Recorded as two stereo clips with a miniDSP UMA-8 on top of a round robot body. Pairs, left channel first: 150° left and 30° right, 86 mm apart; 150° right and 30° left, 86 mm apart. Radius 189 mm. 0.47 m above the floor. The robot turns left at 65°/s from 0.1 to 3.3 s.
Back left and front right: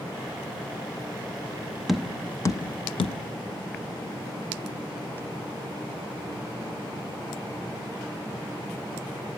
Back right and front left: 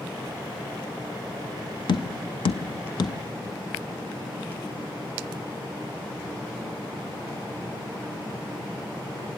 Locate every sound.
1.9 s tapping: 115° right, 0.6 m; by 3.2 s 160° left, 0.6 m